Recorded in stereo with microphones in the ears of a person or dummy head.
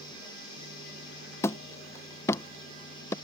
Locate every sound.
1.4 s hammering: 15° left (ahead or behind)